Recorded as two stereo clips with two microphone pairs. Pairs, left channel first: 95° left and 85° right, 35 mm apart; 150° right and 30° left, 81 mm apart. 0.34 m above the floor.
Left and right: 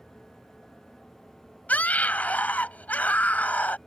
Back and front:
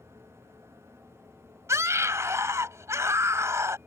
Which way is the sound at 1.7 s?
70° left.